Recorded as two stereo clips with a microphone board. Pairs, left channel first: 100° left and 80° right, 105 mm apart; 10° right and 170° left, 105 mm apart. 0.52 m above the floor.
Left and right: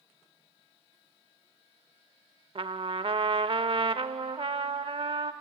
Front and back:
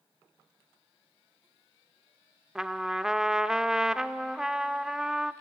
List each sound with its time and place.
2.5 s a trumpet: 105° right, 0.5 m